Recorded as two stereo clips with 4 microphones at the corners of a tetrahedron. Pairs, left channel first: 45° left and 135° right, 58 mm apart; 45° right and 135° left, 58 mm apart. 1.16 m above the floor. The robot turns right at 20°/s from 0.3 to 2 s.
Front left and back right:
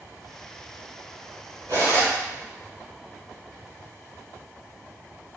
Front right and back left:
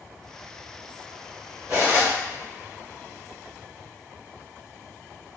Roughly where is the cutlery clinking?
Behind right.